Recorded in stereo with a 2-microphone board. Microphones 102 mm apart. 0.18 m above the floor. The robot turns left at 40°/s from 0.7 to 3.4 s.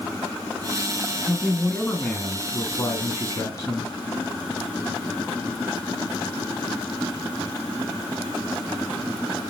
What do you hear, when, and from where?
1.3 s a man speaking: straight behind, 1.8 m; by 3.9 s 90° left, 1.8 m